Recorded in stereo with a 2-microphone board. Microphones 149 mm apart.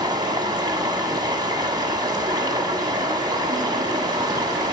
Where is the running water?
30° right (ahead or behind), 1.3 m.